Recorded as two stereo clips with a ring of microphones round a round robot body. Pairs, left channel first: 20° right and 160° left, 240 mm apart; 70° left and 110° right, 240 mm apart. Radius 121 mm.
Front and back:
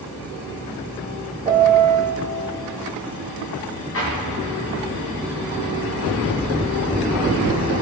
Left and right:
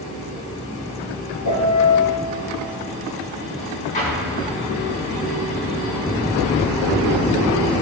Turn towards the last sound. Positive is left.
turn(degrees=10)